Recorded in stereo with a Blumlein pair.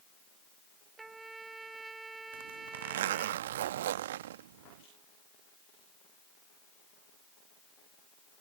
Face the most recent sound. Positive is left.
turn(degrees=-55)